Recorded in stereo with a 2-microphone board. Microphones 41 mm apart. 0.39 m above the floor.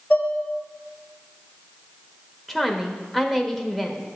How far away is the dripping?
No dripping in this recording.